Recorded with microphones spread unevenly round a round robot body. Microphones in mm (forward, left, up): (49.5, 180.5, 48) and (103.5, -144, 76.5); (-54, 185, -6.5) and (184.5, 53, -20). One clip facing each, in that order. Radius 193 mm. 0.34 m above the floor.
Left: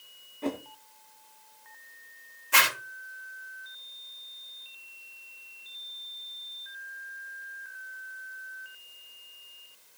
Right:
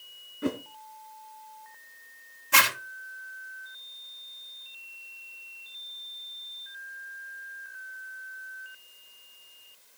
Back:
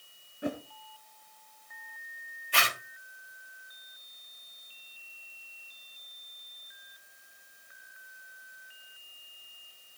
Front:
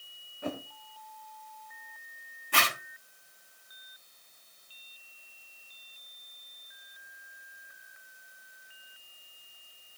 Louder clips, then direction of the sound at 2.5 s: Right 1 dB, front 2 dB; 85° right.